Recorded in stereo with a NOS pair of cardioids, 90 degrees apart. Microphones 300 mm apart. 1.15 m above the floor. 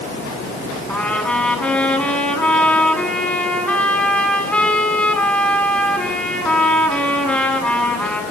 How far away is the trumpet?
About 9 m.